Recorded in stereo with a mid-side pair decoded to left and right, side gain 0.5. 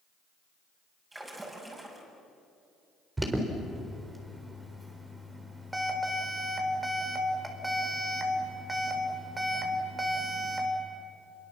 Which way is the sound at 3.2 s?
15° right.